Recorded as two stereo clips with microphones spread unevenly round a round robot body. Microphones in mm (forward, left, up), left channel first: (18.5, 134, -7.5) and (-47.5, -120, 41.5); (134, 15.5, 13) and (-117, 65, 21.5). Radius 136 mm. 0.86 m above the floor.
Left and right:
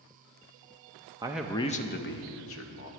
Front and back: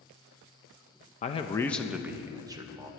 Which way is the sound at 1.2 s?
25° right.